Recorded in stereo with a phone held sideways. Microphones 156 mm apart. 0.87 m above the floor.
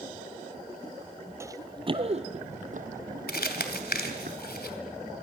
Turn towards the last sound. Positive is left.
turn(degrees=80)